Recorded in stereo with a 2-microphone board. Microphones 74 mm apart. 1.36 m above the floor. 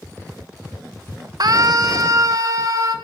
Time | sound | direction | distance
1.4 | a scream | 60° right (ahead or behind) | 1.6 m